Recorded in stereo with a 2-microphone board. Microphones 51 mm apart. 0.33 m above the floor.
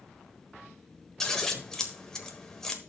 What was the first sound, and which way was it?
Scissors, 15° left (ahead or behind).